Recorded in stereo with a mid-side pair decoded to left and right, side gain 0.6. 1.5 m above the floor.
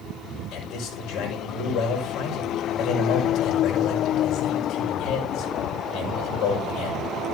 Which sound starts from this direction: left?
A man speaking, at 0.5 s.